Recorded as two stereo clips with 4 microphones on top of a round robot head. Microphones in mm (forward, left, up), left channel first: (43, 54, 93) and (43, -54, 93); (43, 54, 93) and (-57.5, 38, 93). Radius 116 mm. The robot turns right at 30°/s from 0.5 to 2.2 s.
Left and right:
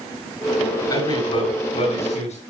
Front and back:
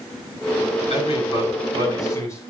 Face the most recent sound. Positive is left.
turn(degrees=70)